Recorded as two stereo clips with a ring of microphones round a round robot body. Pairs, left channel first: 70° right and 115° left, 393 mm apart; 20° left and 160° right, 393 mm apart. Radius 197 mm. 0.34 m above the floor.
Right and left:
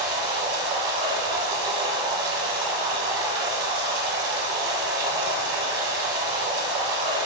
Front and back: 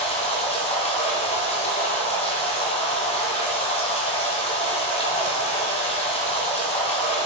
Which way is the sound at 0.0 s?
95° left.